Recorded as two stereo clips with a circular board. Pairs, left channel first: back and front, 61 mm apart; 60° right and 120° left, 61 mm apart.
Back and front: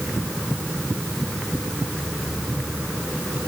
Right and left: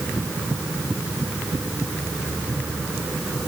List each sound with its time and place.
Only background noise.